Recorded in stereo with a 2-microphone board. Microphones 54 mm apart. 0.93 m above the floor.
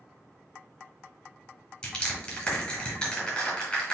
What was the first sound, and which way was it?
Crushing, 15° left (ahead or behind).